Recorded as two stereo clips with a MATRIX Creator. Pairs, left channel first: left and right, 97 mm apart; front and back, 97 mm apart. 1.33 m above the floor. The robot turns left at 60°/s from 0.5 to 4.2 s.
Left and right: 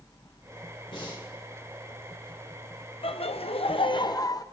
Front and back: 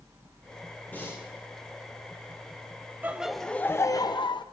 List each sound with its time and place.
0.9 s breathing: 70° left, 3.5 m; by 1.2 s 50° left, 3.5 m
3.0 s laughter: 110° left, 0.7 m; by 4.4 s 40° left, 0.7 m